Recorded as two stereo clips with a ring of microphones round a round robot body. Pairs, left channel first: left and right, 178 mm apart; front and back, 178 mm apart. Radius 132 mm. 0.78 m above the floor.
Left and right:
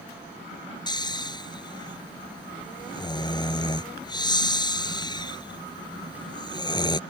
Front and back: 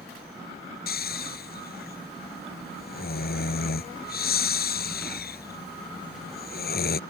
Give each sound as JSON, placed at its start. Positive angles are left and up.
{"t": 0.9, "sound": "snoring", "azimuth_deg": 25}